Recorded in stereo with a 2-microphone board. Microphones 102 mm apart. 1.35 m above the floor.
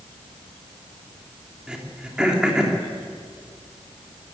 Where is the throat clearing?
10° right (ahead or behind), 3 m.